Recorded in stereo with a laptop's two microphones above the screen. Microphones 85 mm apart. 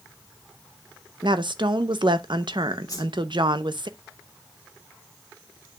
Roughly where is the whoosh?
Left.